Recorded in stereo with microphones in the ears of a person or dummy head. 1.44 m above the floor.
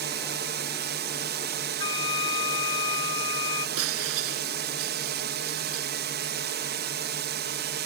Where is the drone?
45° right (ahead or behind).